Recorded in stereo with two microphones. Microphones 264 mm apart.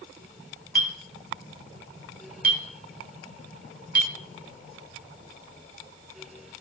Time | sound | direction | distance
0.8 | a clink | 35° right (ahead or behind) | 2 m